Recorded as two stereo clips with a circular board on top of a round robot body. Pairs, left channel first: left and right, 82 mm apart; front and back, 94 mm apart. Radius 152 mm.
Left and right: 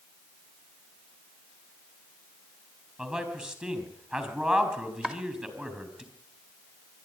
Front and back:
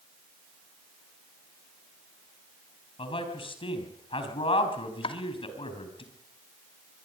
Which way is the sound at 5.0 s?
10° right.